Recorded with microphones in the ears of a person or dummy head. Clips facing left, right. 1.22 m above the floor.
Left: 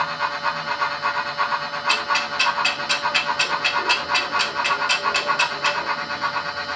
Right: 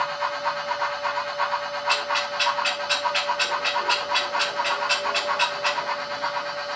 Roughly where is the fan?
Left.